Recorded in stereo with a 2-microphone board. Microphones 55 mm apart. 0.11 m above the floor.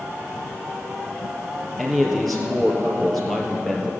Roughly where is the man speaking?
Centre.